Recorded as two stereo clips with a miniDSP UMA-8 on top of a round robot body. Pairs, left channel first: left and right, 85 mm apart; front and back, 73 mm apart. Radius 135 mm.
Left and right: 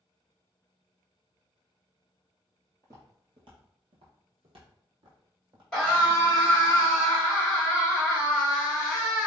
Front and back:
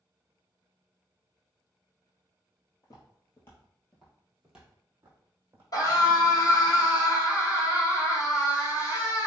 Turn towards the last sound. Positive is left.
turn(degrees=-5)